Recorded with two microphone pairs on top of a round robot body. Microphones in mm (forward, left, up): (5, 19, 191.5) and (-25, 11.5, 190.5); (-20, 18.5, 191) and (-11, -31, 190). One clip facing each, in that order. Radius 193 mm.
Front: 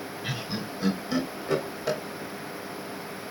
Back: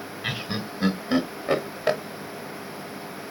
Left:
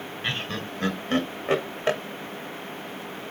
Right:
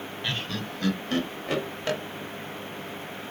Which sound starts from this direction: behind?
Laughter, at 0.2 s.